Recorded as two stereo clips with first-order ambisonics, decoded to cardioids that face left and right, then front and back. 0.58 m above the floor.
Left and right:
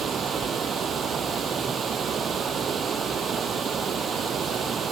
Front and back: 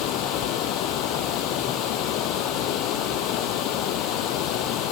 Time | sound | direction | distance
0.0 | running water | 30° right | ?